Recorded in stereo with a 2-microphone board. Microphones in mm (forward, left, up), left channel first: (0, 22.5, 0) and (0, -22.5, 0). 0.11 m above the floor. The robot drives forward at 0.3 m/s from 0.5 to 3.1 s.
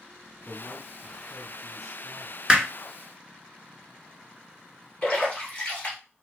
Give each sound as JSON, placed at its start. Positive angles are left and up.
{"t": 0.5, "sound": "a man speaking", "side_deg": -5, "distance_m": 1.8}
{"t": 2.5, "sound": "hammering", "side_deg": -15, "distance_m": 0.9}
{"t": 5.0, "sound": "a splash", "side_deg": 20, "distance_m": 1.9}